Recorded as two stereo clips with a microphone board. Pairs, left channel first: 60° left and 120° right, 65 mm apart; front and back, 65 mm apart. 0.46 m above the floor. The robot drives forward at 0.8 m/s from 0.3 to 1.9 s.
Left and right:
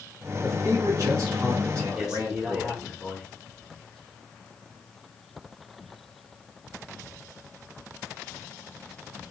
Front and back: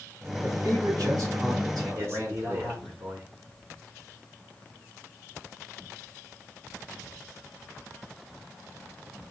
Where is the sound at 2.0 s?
160° left, 1.3 m.